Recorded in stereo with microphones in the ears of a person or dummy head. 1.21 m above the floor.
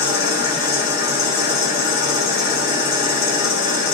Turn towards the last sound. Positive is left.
turn(degrees=50)  # may be behind; listen again after turning